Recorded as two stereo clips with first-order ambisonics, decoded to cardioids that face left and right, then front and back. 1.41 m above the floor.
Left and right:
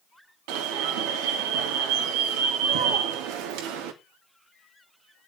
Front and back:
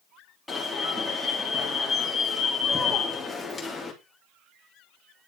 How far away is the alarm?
About 3.5 m.